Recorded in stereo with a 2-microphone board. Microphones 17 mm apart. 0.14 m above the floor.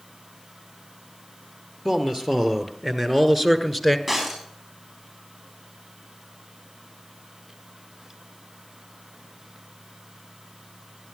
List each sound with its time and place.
1.9 s a man speaking: 30° right (ahead or behind), 2.5 m; by 4.0 s 10° right (ahead or behind), 1.5 m
4.1 s breaking glass: 20° right (ahead or behind), 6 m